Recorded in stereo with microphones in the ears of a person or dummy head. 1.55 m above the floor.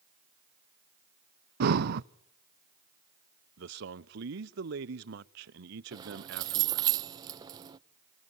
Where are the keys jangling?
25° right (ahead or behind), 0.7 m.